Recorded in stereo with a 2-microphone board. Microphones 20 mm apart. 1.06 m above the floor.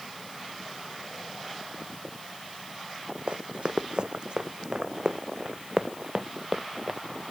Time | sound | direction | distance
3.3 | running footsteps | 60° right (ahead or behind) | ?